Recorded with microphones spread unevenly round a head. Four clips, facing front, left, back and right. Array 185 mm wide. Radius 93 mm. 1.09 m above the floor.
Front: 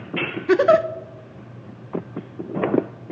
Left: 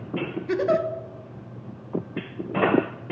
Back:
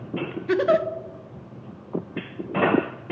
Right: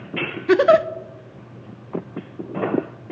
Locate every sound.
0.5 s a giggle: 55° right, 0.6 m